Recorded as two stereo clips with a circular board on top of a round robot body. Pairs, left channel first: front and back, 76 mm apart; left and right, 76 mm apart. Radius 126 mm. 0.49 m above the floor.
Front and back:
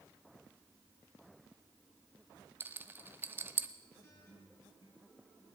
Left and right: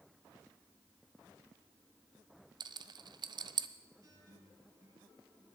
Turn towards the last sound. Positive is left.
turn(degrees=-45)